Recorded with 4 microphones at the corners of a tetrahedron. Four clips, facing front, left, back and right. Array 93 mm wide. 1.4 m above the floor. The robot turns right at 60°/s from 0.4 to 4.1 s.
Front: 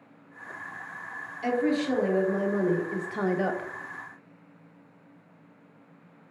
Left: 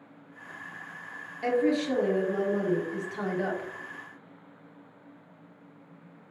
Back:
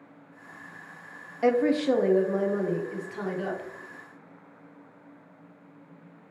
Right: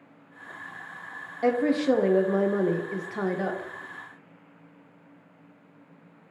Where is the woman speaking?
155° right, 0.8 m; by 3.7 s 15° right, 0.8 m.